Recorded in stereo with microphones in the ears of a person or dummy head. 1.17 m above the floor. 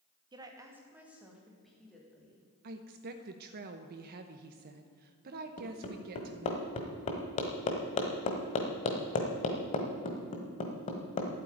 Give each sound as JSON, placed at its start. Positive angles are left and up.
{"t": 0.3, "sound": "a woman speaking", "side_deg": -20, "distance_m": 1.5}
{"t": 2.6, "sound": "a woman speaking", "side_deg": -55, "distance_m": 0.9}
{"t": 5.6, "sound": "hammering", "side_deg": 35, "distance_m": 1.4}